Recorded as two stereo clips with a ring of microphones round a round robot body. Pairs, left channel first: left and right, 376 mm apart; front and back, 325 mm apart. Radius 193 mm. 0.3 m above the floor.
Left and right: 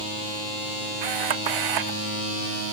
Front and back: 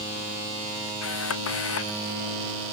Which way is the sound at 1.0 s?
55° right.